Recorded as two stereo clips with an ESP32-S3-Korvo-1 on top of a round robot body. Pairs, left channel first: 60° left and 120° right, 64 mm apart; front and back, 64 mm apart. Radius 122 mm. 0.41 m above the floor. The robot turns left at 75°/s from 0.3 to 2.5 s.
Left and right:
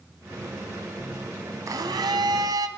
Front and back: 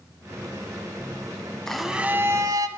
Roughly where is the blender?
Right.